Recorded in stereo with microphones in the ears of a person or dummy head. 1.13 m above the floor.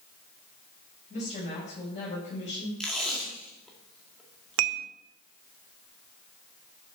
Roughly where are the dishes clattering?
Right.